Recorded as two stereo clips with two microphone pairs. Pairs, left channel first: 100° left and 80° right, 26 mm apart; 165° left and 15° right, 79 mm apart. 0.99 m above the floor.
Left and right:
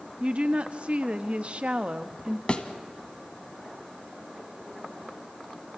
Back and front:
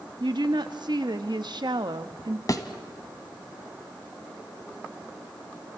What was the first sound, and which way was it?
A woman speaking, 35° right.